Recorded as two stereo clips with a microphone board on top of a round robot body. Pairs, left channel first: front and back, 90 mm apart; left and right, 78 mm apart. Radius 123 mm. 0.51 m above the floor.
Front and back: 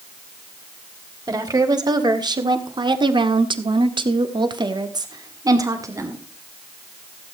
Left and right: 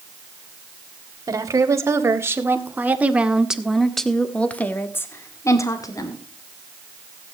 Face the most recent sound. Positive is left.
turn(degrees=125)